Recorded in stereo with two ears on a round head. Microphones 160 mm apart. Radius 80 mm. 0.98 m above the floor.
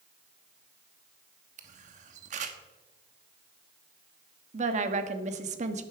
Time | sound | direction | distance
1.6 | a camera shutter | 40° right (ahead or behind) | 1.2 m
4.5 | a woman speaking | 40° right (ahead or behind) | 1.3 m